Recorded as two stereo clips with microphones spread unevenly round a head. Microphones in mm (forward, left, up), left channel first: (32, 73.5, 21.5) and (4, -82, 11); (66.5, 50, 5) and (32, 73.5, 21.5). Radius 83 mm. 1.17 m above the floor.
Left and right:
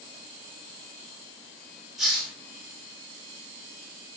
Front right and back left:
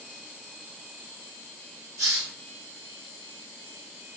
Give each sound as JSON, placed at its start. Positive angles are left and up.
{"t": 2.0, "sound": "a hiss", "azimuth_deg": 175, "distance_m": 1.8}